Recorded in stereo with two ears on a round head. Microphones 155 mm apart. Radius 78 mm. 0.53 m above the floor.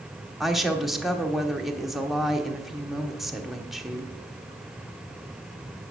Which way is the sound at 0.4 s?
Centre (ahead or behind).